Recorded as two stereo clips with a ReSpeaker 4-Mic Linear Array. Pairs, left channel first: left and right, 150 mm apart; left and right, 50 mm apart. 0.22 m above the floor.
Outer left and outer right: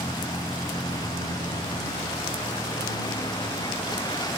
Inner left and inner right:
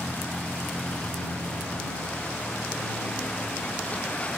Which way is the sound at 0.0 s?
25° left (ahead or behind).